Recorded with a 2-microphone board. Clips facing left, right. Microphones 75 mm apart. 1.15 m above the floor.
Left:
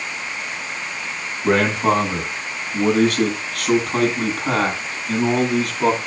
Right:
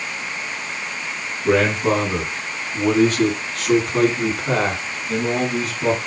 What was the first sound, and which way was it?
A man speaking, 65° left (ahead or behind).